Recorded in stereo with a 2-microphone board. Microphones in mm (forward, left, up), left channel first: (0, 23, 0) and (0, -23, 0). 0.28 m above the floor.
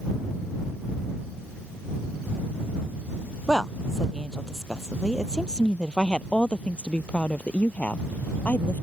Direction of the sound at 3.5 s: 5° left (ahead or behind).